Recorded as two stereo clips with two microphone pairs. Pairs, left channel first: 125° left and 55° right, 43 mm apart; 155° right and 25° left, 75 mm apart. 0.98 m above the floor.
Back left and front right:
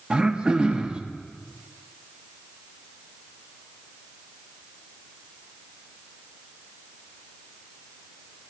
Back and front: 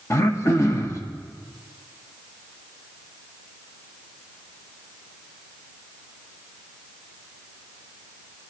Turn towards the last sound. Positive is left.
turn(degrees=-115)